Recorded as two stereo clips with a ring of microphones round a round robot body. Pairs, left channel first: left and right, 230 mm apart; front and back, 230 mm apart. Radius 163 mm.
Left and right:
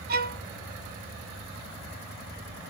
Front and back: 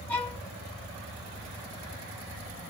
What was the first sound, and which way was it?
A violin, 80° right.